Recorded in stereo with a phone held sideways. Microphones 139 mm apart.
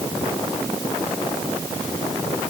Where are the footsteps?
I don't hear footsteps.